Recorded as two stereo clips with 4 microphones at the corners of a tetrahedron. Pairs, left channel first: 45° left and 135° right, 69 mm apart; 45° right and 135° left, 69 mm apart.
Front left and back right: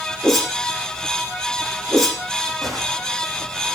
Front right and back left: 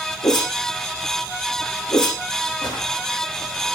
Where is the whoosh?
45° right, 7.5 m.